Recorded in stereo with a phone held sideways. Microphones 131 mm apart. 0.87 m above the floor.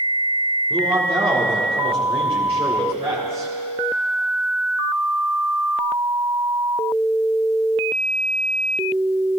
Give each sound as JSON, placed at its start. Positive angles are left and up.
{"t": 0.7, "sound": "a man speaking", "side_deg": -50, "distance_m": 2.0}